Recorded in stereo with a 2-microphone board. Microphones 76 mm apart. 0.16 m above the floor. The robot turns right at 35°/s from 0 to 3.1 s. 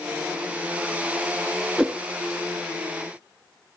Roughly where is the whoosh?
Centre.